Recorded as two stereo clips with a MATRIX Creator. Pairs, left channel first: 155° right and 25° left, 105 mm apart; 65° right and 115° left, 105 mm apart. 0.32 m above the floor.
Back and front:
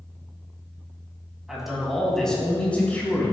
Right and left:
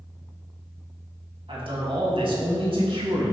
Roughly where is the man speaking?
Left.